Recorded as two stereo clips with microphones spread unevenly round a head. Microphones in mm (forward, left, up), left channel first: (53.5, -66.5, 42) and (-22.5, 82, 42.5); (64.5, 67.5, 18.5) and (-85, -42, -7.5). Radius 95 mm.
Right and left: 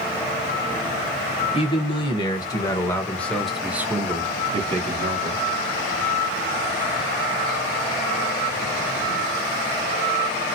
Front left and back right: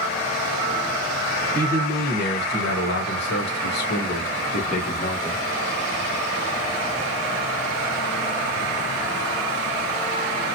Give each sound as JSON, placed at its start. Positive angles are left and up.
{"t": 1.5, "sound": "a man speaking", "azimuth_deg": -10, "distance_m": 1.6}